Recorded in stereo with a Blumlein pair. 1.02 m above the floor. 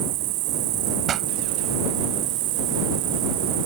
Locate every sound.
0.0 s an insect: 40° right
1.1 s a pop: 25° right